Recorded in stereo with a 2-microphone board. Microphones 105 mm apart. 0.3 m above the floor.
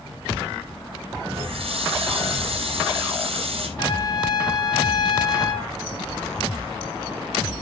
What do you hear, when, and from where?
1.3 s a running tap: 65° right (ahead or behind), 5.5 m
3.8 s a trumpet: 40° left (ahead or behind), 2.5 m